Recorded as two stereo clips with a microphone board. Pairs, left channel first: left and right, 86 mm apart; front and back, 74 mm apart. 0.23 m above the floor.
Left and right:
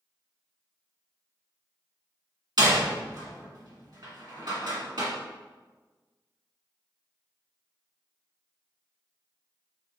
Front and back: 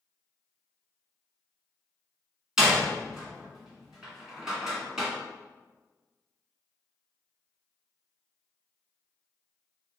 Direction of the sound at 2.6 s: 100° right.